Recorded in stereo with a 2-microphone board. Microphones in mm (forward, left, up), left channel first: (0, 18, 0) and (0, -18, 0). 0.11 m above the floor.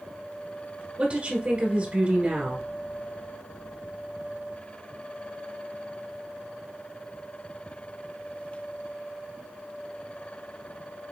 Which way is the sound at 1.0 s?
30° right (ahead or behind).